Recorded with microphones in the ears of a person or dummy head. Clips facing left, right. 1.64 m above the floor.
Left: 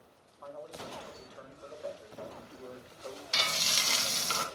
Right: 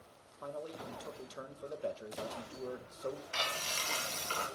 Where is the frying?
50° left (ahead or behind), 1.7 m.